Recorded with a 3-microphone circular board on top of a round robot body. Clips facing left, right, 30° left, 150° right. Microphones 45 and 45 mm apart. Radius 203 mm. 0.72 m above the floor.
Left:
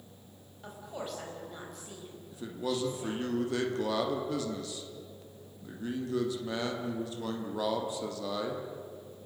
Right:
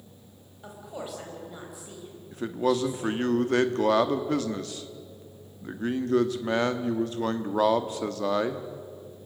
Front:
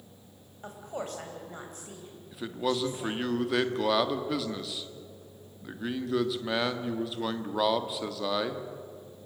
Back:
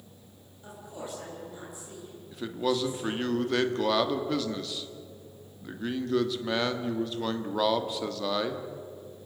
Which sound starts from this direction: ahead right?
A man speaking, at 2.3 s.